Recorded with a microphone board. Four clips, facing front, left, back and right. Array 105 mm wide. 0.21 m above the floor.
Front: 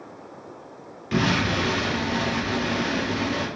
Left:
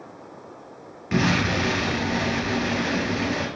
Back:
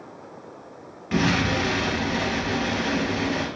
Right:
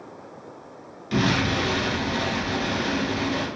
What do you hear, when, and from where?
1.1 s an explosion: 115° left, 1.6 m